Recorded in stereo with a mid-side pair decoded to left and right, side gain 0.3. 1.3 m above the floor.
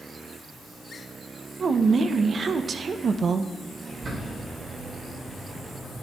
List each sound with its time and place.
1.6 s a woman speaking: 65° right, 0.9 m
3.9 s a bird: 70° right, 4.5 m